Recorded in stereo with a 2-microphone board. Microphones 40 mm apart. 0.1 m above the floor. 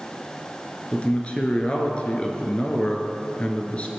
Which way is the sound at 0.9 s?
30° left (ahead or behind).